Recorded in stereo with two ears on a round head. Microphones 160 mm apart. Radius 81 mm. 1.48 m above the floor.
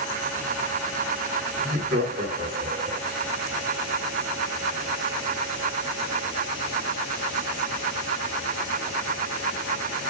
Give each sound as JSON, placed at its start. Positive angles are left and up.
{"t": 1.6, "sound": "laughter", "side_deg": -45, "distance_m": 5.0}